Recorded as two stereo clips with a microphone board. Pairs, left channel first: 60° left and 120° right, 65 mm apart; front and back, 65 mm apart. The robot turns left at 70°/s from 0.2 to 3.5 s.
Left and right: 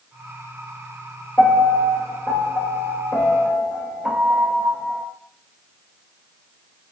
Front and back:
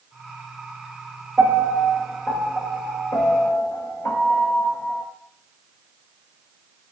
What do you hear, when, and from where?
1.4 s a piano: 125° left, 0.8 m; by 5.0 s 25° right, 0.8 m